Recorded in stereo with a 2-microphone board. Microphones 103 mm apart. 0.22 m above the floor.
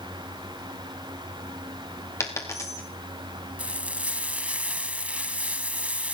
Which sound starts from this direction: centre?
Frying, at 3.6 s.